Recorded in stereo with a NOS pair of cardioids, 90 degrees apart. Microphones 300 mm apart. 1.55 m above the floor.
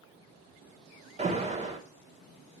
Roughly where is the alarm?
Ahead right.